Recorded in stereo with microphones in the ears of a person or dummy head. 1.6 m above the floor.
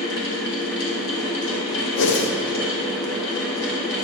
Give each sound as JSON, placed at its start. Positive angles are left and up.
{"t": 0.0, "sound": "a fan", "side_deg": 60, "distance_m": 1.5}
{"t": 2.0, "sound": "a whoosh", "side_deg": 60, "distance_m": 0.8}